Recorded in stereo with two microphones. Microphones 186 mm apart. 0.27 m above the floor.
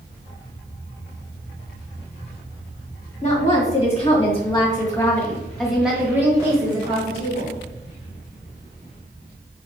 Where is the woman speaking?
40° left (ahead or behind), 1.8 m; by 7.5 s 40° right (ahead or behind), 1.4 m.